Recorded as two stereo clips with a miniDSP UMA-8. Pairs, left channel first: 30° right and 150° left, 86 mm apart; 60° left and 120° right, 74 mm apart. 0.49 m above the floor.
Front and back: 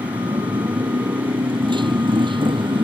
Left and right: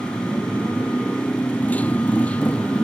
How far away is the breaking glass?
I don't hear breaking glass.